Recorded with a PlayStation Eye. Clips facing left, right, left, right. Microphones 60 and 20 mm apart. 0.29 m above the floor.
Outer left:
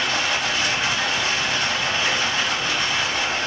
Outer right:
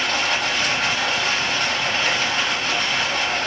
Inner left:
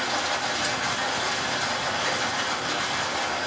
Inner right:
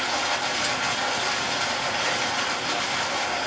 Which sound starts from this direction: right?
Running water, at 0.0 s.